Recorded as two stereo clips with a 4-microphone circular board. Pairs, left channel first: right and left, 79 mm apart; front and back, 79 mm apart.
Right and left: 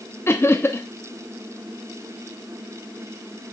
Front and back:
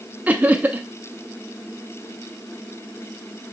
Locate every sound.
0.3 s laughter: 120° right, 0.7 m